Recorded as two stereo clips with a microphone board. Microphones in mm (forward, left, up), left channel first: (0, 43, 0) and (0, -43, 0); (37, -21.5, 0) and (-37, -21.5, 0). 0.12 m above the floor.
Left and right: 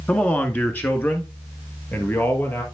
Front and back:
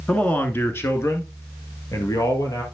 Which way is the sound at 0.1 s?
50° left.